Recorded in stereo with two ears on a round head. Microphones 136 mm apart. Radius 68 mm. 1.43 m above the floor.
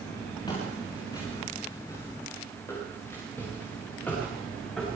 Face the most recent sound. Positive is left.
turn(degrees=5)  # may be behind; listen again after turning